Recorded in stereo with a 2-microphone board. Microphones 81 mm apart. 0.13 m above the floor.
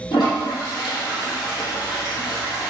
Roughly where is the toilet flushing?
Left.